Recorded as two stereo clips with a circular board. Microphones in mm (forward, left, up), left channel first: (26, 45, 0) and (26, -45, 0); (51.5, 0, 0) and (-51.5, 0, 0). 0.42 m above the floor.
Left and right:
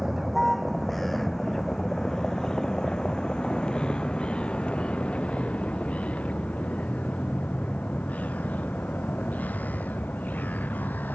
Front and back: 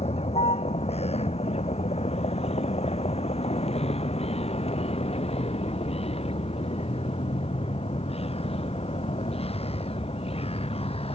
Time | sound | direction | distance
0.0 | a vehicle | 5° right | ?